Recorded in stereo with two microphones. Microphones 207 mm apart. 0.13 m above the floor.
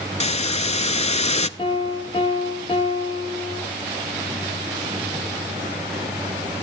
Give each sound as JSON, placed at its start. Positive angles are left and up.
{"t": 0.2, "sound": "a hiss", "side_deg": 35, "distance_m": 0.5}
{"t": 1.6, "sound": "a piano", "side_deg": 25, "distance_m": 3.0}